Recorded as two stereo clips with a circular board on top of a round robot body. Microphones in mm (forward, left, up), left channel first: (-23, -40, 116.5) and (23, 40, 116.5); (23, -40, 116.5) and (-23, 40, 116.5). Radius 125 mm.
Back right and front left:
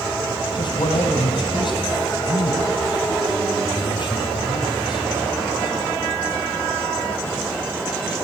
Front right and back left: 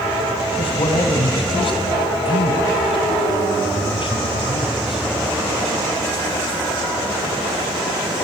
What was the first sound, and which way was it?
A man speaking, 85° right.